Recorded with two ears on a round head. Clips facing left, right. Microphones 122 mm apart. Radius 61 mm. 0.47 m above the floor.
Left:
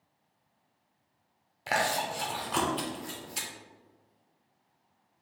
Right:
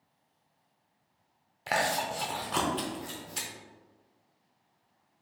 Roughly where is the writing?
No writing in this recording.